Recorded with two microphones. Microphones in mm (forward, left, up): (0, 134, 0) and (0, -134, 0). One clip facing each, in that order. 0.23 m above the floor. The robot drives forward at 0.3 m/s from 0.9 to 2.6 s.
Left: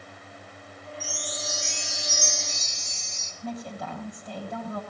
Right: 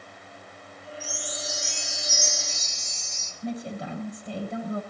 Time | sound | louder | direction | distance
1.0 | a chime | even | 75° left (ahead or behind) | 3 m
3.4 | a woman speaking | right 3 dB | 30° right (ahead or behind) | 8 m